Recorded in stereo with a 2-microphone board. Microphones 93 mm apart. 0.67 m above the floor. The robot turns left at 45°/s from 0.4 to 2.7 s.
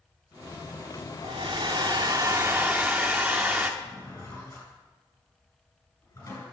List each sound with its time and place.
1.2 s a hair dryer: 95° right, 1.0 m; by 3.7 s 160° right, 1.0 m
3.8 s a drawer: 35° left (ahead or behind), 6.5 m